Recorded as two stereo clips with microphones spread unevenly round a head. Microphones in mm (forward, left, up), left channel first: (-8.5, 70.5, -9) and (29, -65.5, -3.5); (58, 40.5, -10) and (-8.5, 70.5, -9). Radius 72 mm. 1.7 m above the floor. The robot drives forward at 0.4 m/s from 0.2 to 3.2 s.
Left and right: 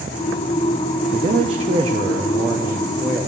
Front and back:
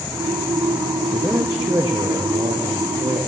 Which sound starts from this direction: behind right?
A man speaking, at 1.1 s.